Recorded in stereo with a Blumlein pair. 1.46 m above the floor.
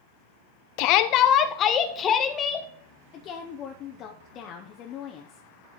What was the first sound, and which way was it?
A shout, 45° left.